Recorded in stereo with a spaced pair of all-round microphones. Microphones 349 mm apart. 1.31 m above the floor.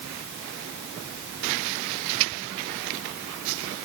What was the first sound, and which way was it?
Only background noise.